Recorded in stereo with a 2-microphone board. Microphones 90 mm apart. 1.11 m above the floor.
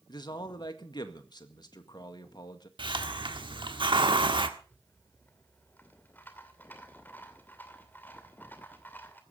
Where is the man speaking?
55° left (ahead or behind), 1.8 m.